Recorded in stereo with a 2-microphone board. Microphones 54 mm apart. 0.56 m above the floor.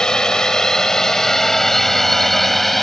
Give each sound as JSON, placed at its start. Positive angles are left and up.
{"t": 0.0, "sound": "a drone", "side_deg": 15}